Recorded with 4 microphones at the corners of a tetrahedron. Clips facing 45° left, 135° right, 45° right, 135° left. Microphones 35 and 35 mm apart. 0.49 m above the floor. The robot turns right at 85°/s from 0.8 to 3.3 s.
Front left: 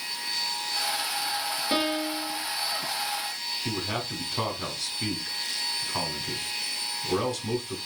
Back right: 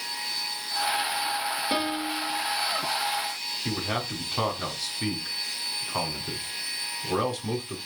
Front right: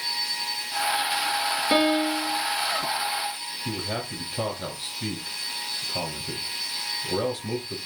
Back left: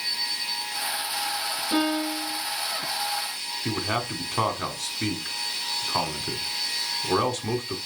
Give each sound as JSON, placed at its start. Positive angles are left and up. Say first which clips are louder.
{"t": 1.7, "sound": "a piano", "louder": "front left 4 dB, front right 3 dB", "azimuth_deg": -45, "distance_m": 2.5}
{"t": 3.6, "sound": "a man speaking", "louder": "back right 2 dB, back left 4 dB", "azimuth_deg": 145, "distance_m": 4.0}